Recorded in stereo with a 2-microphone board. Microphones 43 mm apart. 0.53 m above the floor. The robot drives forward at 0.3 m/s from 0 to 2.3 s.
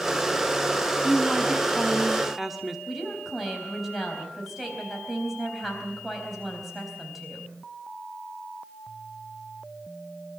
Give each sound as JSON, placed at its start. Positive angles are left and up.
{"t": 1.0, "sound": "a woman speaking", "side_deg": -5, "distance_m": 1.2}
{"t": 2.9, "sound": "a woman speaking", "side_deg": -5, "distance_m": 4.0}